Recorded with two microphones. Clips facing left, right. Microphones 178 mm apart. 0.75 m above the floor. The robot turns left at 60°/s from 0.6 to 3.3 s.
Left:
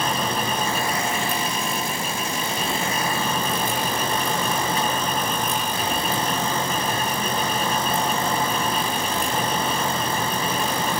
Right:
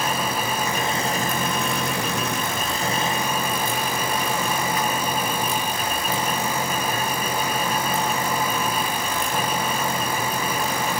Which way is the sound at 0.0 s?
10° right.